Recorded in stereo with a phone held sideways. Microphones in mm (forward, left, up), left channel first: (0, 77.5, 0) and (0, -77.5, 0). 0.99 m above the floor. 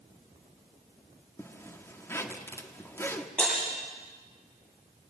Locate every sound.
1.4 s a zipper: 15° left (ahead or behind), 1.5 m
3.4 s breaking glass: 5° left (ahead or behind), 10 m